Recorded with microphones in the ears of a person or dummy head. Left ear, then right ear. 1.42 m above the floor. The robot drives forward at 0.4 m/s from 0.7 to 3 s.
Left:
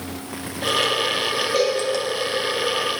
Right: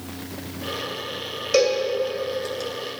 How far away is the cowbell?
About 2 m.